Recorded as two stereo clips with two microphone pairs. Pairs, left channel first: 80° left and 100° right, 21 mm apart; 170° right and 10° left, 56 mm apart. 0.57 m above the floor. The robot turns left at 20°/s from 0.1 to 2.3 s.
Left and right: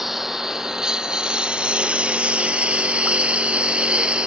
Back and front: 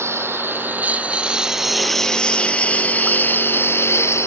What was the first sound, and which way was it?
A lawn mower, 25° right.